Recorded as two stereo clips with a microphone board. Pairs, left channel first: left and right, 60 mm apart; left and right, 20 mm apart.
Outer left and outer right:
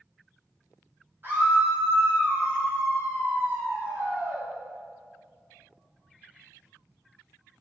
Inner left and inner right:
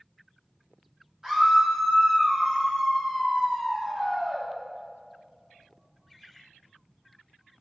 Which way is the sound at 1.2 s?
40° right (ahead or behind).